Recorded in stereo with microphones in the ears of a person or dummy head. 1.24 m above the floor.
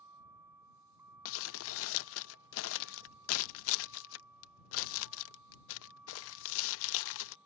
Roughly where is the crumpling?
Left.